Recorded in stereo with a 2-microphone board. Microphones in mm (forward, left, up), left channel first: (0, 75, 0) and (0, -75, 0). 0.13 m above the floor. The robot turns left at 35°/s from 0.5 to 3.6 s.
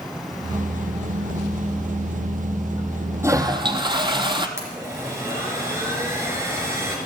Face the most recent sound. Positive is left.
turn(degrees=-15)  # may be behind; listen again after turning